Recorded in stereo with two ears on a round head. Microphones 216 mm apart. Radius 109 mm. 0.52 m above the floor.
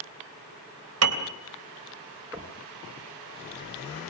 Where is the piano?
60° right (ahead or behind), 3 m.